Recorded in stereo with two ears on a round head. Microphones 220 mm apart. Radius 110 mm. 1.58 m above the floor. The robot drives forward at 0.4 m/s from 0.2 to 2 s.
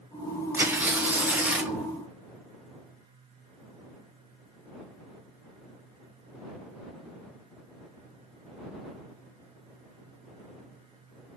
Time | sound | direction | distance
0.5 | tearing paper | 10° right (ahead or behind) | 0.5 m